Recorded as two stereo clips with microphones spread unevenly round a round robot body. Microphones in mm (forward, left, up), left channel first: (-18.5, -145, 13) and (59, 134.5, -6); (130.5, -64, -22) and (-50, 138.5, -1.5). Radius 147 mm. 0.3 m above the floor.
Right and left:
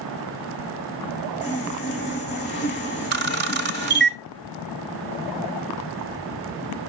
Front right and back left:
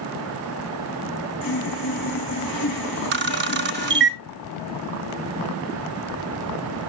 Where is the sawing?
50° right, 6 m.